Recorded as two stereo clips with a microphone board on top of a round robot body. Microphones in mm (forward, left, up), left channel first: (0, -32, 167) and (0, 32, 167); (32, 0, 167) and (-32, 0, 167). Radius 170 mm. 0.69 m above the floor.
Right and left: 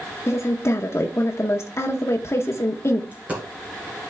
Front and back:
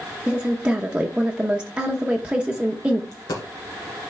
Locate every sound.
0.3 s a woman speaking: 110° right, 0.9 m
3.1 s a dropped coin: 20° left, 1.8 m